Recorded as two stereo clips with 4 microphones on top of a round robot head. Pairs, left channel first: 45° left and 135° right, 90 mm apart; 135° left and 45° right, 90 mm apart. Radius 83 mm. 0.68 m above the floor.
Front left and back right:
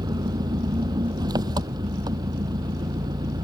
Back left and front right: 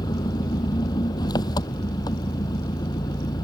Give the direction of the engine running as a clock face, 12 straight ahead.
6 o'clock.